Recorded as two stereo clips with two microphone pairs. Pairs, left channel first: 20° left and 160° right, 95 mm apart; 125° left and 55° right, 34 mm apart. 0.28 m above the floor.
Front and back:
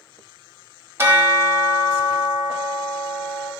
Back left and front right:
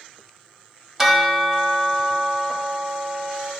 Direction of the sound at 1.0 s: 120° right.